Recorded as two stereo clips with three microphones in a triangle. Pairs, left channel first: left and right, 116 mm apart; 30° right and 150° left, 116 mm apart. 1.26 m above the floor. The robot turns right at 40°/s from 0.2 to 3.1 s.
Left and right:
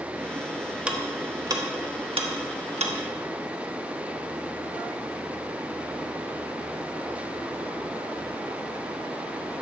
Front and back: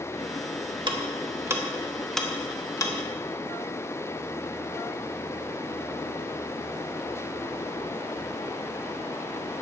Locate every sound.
0.9 s ticking: 170° right, 1.1 m; by 2.9 s 85° right, 1.1 m